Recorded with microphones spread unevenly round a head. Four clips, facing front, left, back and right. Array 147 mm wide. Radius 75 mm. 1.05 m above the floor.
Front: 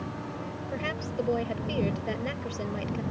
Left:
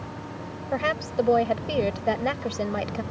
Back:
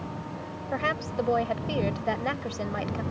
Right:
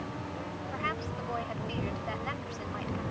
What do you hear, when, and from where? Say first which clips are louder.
0.7 s a woman speaking: left 12 dB, back 5 dB; 85° left